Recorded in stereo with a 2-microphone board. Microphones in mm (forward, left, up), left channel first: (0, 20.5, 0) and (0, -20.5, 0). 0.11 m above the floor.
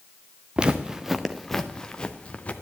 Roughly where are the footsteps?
Right.